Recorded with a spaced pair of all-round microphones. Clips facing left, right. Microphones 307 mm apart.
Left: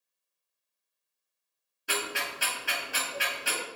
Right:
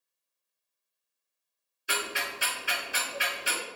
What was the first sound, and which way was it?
Ticking, 65° left (ahead or behind).